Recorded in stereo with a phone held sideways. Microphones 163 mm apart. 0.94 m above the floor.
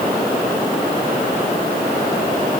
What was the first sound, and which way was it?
Only background noise.